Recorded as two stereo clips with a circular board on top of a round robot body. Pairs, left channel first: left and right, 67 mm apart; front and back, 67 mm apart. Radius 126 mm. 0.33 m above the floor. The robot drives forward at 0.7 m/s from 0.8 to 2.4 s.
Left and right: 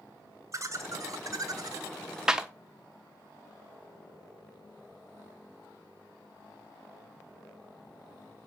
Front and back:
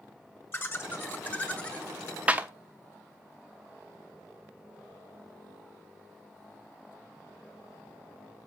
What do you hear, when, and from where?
0.5 s laughter: 55° right, 2 m; by 1.9 s 75° right, 1.9 m
2.3 s a clap: 150° right, 1.2 m; by 2.5 s 155° right, 1.2 m